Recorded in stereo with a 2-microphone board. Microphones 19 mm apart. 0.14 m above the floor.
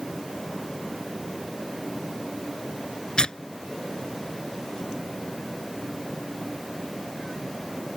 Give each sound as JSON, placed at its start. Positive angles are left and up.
{"t": 3.2, "sound": "tearing paper", "side_deg": 50}